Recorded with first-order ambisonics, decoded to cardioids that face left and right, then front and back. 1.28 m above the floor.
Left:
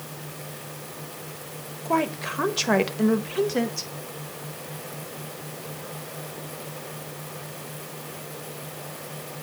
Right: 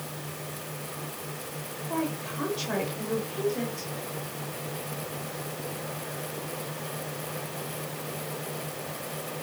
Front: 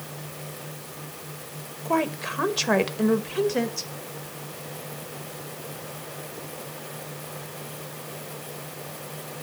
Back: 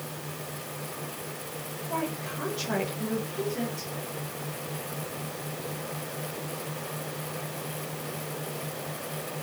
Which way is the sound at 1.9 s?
45° left.